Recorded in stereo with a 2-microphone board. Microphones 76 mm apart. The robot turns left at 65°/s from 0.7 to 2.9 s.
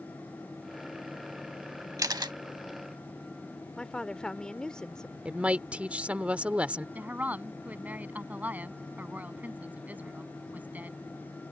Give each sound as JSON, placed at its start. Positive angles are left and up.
{"t": 2.0, "sound": "a camera shutter", "side_deg": -50}
{"t": 3.8, "sound": "a woman speaking", "side_deg": 10}
{"t": 5.2, "sound": "a woman speaking", "side_deg": -15}
{"t": 7.0, "sound": "a woman speaking", "side_deg": -20}